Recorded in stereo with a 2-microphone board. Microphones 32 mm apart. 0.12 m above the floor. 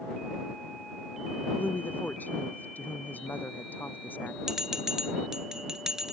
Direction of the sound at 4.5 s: 15° right (ahead or behind).